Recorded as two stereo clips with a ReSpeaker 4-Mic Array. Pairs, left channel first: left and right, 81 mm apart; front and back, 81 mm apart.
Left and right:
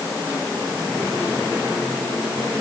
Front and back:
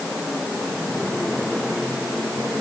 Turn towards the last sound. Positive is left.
No sound to turn to.